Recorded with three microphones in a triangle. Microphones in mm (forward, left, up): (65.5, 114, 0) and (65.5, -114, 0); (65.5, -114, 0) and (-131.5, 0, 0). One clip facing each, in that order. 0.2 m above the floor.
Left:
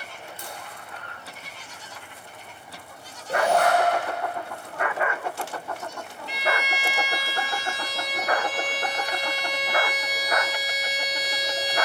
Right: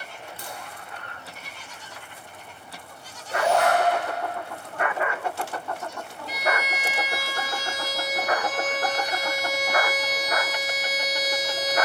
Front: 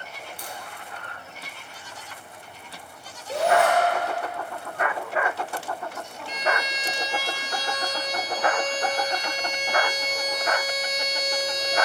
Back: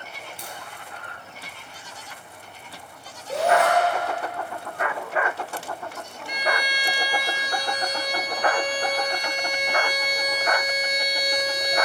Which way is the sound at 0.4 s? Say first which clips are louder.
Right 1 dB, front 2 dB; 145° right.